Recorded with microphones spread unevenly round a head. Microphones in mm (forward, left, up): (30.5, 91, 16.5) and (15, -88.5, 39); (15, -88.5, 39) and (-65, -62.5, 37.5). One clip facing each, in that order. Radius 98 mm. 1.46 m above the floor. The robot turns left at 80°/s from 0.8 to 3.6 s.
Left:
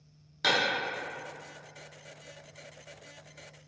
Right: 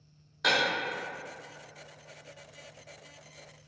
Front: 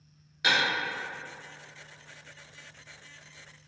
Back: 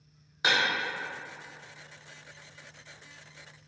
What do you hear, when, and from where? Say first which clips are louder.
0.4 s breaking glass: even, even; 130° left, 1.0 m